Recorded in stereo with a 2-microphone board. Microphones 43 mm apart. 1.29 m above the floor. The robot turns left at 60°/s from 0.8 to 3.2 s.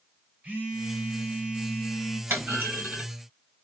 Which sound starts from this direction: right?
A phone buzzing, at 0.4 s.